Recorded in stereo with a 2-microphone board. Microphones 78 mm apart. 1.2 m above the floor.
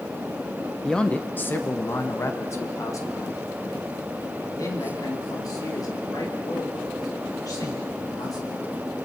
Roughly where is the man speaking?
Centre.